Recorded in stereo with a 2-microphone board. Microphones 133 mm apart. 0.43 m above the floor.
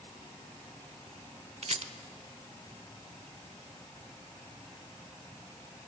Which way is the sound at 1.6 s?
55° right (ahead or behind).